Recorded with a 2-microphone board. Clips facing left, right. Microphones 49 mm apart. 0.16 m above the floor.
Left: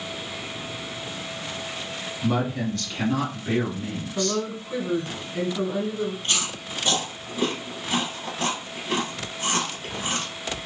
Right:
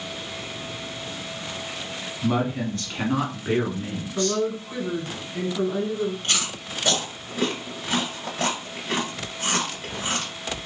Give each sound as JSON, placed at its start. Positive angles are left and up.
{"t": 2.2, "sound": "a woman speaking", "side_deg": -15, "distance_m": 1.3}
{"t": 4.2, "sound": "a woman speaking", "side_deg": 5, "distance_m": 1.5}
{"t": 6.2, "sound": "chewing", "side_deg": -55, "distance_m": 1.6}